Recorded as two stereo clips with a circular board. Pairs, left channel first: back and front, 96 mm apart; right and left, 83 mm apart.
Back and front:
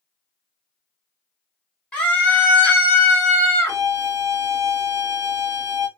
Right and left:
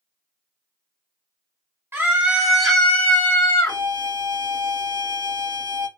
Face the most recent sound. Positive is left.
turn(degrees=55)